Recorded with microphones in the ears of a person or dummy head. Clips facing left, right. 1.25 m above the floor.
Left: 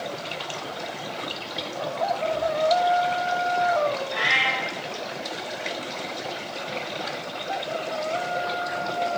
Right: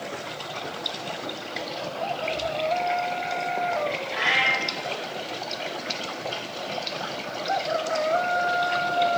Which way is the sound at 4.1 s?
10° left (ahead or behind).